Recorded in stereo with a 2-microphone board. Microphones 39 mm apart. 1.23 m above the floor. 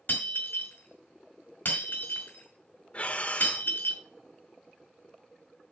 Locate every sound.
0.1 s breaking glass: 50° left (ahead or behind), 5 m
2.9 s breathing: 35° left (ahead or behind), 1.3 m